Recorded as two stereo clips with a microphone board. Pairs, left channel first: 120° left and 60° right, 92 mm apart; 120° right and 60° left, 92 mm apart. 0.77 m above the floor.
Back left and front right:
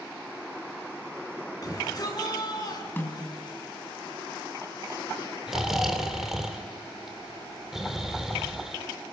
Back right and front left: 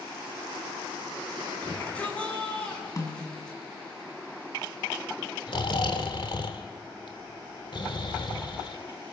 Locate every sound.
1.6 s a shout: 165° left, 9 m; by 3.6 s 155° left, 9.5 m
3.0 s a snare drum: 175° right, 6 m
5.5 s snoring: 145° right, 2.5 m